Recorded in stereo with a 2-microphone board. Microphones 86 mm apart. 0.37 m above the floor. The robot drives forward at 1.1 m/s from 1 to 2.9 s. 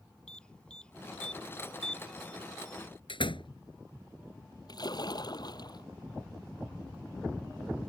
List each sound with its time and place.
0.3 s an alarm: 10° left (ahead or behind)
3.1 s a door slam: 80° left
4.7 s a splash: 50° left (ahead or behind)